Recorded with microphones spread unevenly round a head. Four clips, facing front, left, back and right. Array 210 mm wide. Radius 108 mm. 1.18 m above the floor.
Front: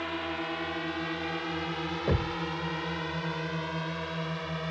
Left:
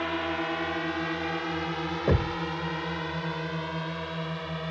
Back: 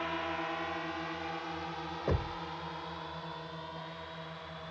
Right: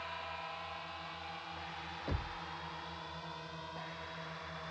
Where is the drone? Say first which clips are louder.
Left 14 dB, front 2 dB; 80° left; by 4.7 s 45° left.